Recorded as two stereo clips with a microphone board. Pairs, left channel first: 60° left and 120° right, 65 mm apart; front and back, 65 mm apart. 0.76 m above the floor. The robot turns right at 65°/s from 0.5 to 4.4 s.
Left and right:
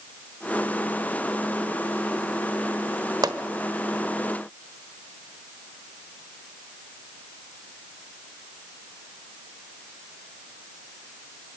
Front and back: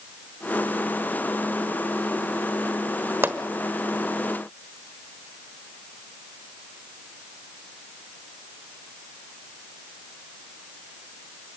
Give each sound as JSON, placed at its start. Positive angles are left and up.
{"t": 3.2, "sound": "a pop", "azimuth_deg": -125, "distance_m": 1.2}